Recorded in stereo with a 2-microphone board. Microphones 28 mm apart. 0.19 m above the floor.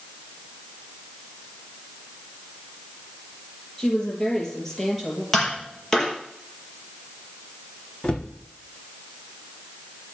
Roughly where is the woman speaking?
Left.